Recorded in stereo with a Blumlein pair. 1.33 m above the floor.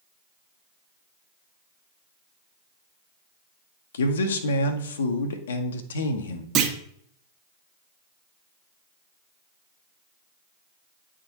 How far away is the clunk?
About 1.2 m.